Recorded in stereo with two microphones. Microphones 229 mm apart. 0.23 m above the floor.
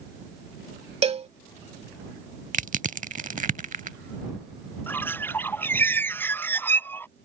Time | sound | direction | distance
1.0 | a cowbell | 30° right (ahead or behind) | ?
2.5 | crushing | 35° right (ahead or behind) | ?
4.9 | a bird | 10° left (ahead or behind) | ?